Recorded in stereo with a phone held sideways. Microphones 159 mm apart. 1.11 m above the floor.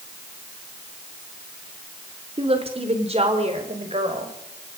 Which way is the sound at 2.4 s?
40° right (ahead or behind).